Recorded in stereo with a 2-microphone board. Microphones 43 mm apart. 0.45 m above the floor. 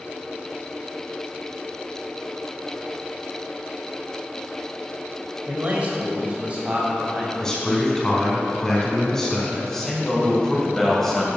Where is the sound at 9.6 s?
10° left (ahead or behind), 2.5 m.